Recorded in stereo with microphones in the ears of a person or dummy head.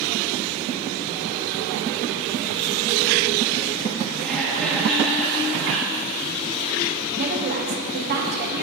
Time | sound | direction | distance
4.2 | laughter | 5° left (ahead or behind) | 1.8 m
7.2 | a woman speaking | 55° right (ahead or behind) | 1.8 m